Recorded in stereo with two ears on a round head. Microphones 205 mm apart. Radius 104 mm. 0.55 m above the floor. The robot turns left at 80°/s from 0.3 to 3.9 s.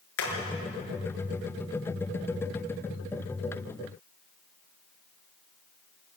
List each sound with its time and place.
0.2 s hammering: 65° left (ahead or behind), 5.5 m; by 0.3 s 70° left (ahead or behind), 5.5 m